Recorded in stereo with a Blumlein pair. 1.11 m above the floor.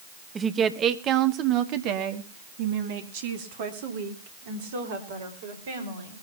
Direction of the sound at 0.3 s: 15° right.